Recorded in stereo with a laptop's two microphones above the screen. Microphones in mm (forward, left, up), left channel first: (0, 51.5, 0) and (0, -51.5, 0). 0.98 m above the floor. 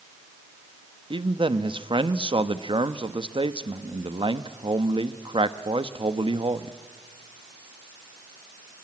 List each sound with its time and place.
1.1 s a man speaking: 55° right (ahead or behind), 1.1 m